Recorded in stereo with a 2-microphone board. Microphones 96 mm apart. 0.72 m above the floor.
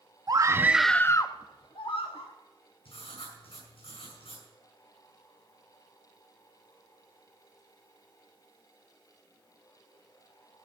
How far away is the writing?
About 6.5 m.